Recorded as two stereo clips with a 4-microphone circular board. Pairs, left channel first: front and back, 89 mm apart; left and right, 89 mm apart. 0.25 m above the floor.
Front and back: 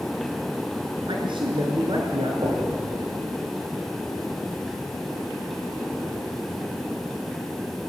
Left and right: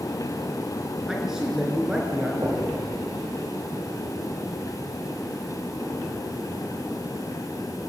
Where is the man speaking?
175° right, 3.5 m; by 2.3 s 170° right, 4.5 m.